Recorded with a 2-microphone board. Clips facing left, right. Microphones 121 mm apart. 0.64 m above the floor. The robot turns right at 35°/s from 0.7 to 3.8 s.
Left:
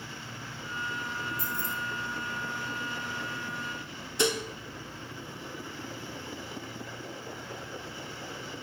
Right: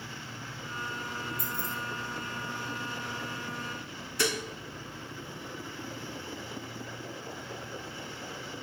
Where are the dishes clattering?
20° left (ahead or behind), 0.8 m.